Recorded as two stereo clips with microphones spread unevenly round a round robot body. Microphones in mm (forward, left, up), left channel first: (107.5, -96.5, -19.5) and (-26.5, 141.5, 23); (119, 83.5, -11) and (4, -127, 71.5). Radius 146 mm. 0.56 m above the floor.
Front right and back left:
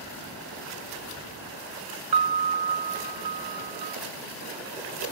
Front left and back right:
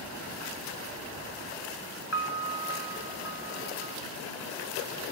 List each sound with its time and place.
2.1 s a piano: 105° left